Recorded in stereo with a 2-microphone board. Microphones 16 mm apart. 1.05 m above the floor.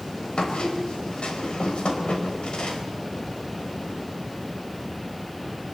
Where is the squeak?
85° left, 4 m.